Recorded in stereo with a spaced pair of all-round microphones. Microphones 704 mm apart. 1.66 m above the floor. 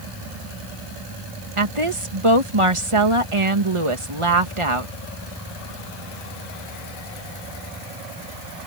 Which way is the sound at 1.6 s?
45° right (ahead or behind).